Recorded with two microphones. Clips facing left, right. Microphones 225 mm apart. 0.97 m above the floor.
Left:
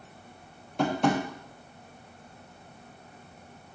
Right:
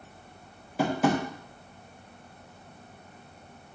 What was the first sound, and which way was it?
Tapping, 5° right (ahead or behind).